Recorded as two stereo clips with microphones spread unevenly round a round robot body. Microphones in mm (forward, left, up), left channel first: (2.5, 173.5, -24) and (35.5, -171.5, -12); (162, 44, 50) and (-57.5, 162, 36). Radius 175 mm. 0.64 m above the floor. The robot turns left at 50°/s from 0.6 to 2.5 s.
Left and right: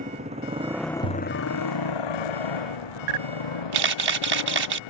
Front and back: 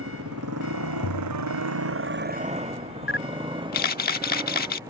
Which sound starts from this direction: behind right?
A motorcycle, at 0.0 s.